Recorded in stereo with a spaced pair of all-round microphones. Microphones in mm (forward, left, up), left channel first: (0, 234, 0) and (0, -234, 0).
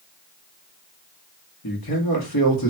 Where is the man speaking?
50° left (ahead or behind), 1.3 m.